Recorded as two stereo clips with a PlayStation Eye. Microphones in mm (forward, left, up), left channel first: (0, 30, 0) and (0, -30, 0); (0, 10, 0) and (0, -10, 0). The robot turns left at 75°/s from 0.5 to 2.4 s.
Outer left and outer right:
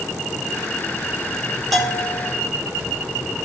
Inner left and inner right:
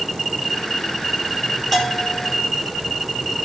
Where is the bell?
175° left, 1.9 m; by 2.2 s 135° left, 1.9 m.